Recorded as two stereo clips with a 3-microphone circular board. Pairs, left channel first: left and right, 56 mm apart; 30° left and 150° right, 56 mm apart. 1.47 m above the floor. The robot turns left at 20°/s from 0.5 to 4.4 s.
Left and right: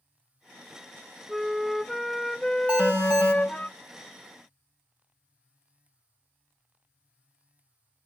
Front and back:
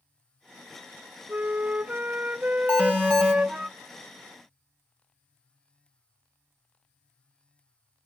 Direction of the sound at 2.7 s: 35° right.